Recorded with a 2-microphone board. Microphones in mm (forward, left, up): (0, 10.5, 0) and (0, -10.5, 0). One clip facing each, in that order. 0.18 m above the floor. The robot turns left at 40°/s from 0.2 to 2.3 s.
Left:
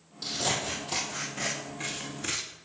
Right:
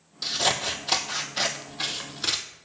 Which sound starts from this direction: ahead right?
Scissors, at 0.2 s.